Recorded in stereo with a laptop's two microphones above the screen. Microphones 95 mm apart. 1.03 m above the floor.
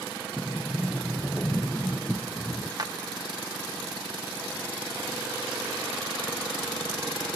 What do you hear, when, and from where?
0.4 s a sliding door: 15° left (ahead or behind), 0.6 m
2.8 s a clap: 45° right (ahead or behind), 1.2 m